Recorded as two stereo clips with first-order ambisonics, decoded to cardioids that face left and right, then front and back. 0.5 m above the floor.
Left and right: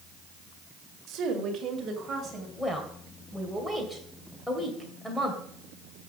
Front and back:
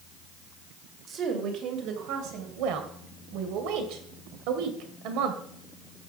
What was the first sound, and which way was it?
A woman speaking, 125° right.